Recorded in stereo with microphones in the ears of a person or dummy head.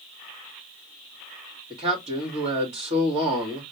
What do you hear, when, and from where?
1.7 s a man speaking: 35° right (ahead or behind), 2 m